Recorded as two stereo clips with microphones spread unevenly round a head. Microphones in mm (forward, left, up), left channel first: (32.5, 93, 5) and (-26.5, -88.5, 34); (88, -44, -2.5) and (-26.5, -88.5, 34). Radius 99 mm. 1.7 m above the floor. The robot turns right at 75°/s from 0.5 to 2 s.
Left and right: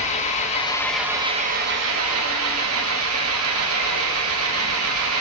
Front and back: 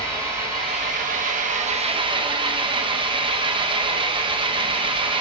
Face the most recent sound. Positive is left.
turn(degrees=-115)